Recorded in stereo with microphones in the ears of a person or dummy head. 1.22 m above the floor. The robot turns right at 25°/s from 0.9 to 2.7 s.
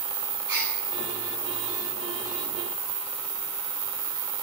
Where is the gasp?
20° right (ahead or behind), 9 m.